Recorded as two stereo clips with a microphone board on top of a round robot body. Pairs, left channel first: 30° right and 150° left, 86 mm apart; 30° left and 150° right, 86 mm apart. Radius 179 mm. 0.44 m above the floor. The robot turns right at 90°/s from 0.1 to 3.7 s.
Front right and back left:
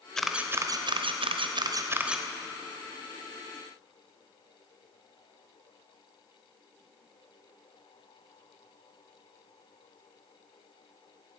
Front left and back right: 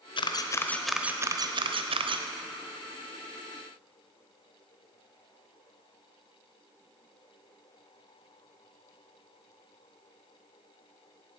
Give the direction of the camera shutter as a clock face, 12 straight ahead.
10 o'clock.